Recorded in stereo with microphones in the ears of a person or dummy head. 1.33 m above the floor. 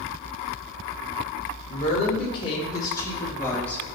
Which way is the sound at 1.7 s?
40° left (ahead or behind).